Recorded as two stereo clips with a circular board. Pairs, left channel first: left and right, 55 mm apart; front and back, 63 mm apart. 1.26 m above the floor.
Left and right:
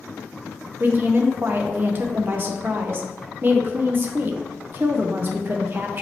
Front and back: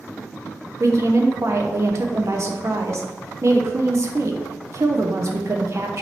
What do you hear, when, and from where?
0.8 s a woman speaking: 140° right, 0.7 m